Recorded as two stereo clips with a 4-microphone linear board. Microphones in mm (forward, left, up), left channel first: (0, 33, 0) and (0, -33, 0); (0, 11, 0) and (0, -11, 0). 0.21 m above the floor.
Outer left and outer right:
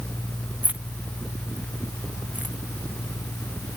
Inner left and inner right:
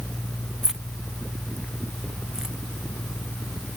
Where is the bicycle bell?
No bicycle bell in this recording.